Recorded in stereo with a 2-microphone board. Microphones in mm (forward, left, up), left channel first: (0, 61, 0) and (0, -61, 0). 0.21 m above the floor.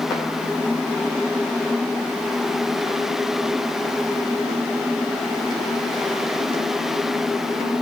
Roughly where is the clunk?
I don't hear a clunk.